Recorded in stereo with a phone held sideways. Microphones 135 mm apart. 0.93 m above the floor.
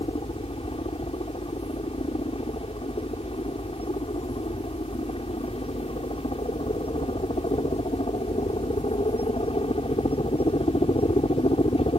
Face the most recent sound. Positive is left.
turn(degrees=45)  # may be behind; listen again after turning